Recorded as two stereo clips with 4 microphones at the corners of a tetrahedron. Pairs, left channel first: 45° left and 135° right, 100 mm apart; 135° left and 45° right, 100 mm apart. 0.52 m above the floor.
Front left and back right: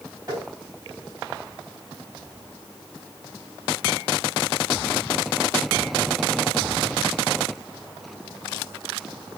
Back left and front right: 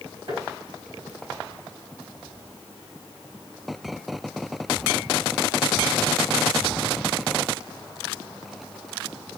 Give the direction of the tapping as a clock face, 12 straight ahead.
2 o'clock.